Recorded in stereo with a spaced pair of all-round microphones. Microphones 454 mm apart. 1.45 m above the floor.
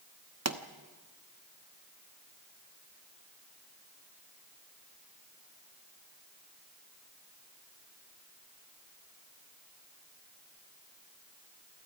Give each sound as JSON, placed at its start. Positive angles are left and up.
{"t": 0.5, "sound": "a pop", "side_deg": -35, "distance_m": 1.1}